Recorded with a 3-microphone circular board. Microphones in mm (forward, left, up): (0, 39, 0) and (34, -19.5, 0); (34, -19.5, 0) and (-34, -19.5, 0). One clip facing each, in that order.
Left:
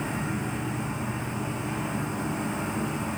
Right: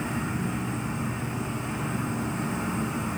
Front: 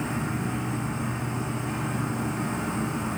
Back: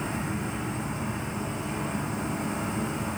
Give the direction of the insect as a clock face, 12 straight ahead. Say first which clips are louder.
Right 1 dB, front 2 dB; 11 o'clock.